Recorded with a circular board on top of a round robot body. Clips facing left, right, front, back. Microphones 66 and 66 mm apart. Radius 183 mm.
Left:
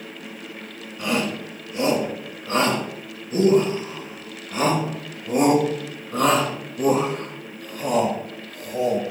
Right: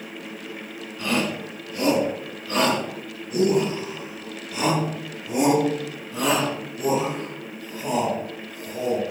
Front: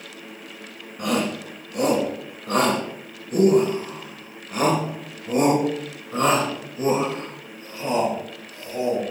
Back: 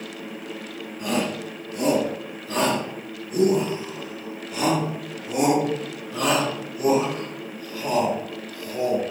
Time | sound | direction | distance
1.0 | a shout | 20° left | 6 m